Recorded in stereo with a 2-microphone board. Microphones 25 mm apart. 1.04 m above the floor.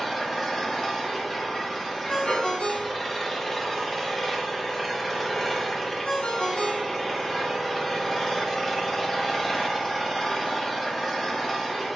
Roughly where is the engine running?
Centre.